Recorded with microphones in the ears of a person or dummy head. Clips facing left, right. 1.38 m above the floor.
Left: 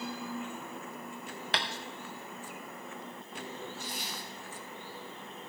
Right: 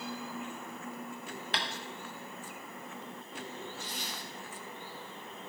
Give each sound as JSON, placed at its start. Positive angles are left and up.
{"t": 1.5, "sound": "tapping", "side_deg": 40, "distance_m": 0.7}
{"t": 3.8, "sound": "a zipper", "side_deg": 20, "distance_m": 2.5}